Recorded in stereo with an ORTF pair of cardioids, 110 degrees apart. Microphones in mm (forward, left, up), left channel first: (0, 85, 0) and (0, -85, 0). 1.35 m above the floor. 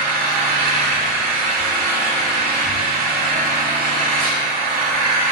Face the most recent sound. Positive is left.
turn(degrees=-55)